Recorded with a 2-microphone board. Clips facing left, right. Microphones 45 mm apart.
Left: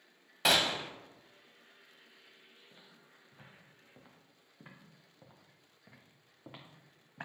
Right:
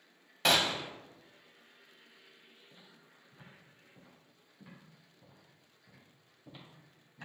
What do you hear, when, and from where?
0.5 s a gunshot: centre (ahead or behind), 0.5 m
2.7 s footsteps: 10° left (ahead or behind), 2.5 m; by 7.2 s 65° left (ahead or behind), 3 m